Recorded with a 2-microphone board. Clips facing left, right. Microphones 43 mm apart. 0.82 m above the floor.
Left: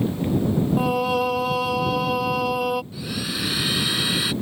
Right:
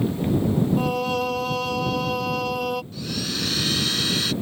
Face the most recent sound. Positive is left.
turn(degrees=15)  # may be behind; listen again after turning